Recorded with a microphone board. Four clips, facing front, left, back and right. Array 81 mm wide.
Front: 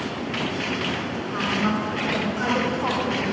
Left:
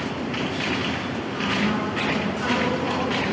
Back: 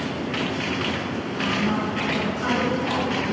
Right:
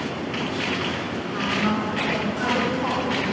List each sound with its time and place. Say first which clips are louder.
1.3 s a woman speaking: right 1 dB, front 1 dB; 55° right, 4 m; by 3.3 s 40° right, 3 m